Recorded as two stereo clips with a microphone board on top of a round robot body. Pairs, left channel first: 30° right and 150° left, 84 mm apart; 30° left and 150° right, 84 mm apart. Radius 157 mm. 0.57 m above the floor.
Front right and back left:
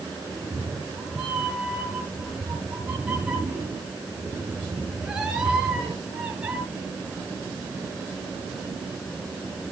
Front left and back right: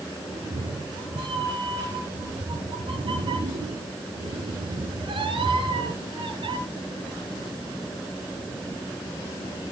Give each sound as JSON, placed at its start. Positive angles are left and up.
{"t": 0.3, "sound": "a cat meowing", "azimuth_deg": -130, "distance_m": 4.5}